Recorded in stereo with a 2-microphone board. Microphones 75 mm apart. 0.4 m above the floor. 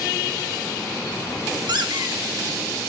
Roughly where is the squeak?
Right.